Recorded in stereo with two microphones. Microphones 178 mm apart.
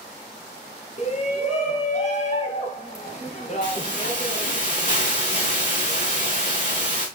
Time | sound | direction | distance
1.0 | a shout | 40° left (ahead or behind) | 2 m
3.6 | a hiss | 45° left (ahead or behind) | 4.5 m